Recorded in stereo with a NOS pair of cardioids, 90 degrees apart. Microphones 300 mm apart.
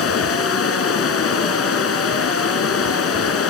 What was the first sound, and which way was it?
Running water, 45° left.